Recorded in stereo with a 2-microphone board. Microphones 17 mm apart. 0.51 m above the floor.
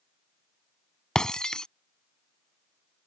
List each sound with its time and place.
1.1 s breaking glass: 55° left (ahead or behind)